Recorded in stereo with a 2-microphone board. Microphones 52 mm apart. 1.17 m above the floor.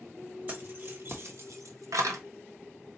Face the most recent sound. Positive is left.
turn(degrees=-80)